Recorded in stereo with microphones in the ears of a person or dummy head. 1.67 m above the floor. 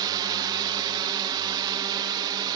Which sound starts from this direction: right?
A drone, at 0.0 s.